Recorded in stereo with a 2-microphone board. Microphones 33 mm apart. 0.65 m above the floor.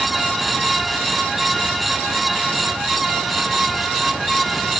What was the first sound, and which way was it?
Only background noise.